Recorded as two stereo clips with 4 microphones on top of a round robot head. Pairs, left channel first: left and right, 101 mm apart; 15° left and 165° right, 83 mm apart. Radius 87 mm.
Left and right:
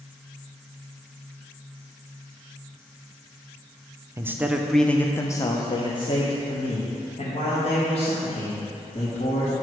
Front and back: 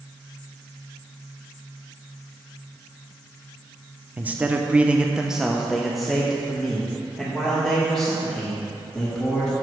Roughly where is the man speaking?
Behind right.